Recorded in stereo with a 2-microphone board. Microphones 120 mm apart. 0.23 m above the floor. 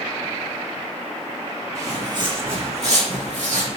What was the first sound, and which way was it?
Footsteps, 25° right (ahead or behind).